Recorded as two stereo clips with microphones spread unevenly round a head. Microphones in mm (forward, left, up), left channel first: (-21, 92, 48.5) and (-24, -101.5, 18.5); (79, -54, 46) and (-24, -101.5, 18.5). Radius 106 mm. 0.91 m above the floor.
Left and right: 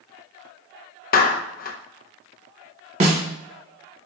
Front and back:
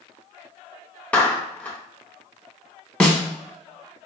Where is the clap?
115° left, 0.6 m.